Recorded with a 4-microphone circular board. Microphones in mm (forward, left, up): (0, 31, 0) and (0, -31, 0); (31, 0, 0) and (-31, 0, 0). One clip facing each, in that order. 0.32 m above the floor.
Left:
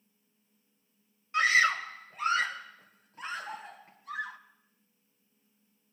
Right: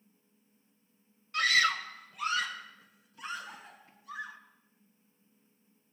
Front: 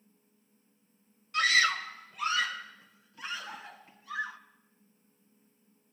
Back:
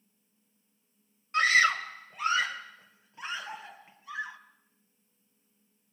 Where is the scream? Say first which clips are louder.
Left 3 dB, back 3 dB; 145° left, 1.6 m; by 4.4 s 115° left, 2.5 m.